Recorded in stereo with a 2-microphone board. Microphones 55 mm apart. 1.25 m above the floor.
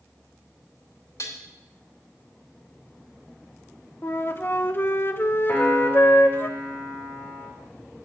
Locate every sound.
1.2 s dishes clattering: 70° left (ahead or behind), 2 m
4.0 s a flute: 35° left (ahead or behind), 0.6 m
5.5 s a piano: 35° left (ahead or behind), 2 m